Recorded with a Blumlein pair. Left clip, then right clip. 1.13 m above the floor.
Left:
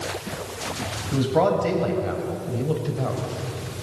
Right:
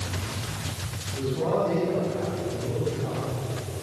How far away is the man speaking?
About 8 m.